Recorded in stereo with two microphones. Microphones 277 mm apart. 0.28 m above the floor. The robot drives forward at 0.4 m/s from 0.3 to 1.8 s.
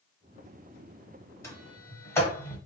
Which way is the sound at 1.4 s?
10° left (ahead or behind).